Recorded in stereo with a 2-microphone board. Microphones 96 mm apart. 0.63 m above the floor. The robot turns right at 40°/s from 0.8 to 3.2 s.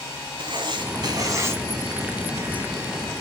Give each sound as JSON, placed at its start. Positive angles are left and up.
{"t": 0.4, "sound": "writing", "azimuth_deg": -55, "distance_m": 1.8}